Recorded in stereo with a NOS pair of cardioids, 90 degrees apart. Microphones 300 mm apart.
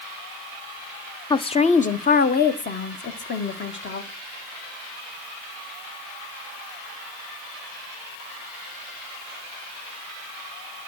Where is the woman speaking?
15° left, 0.7 m; by 4.1 s 40° left, 2 m.